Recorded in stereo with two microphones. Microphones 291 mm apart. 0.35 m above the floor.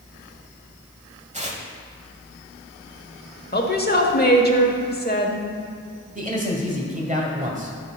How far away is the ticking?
No ticking in this recording.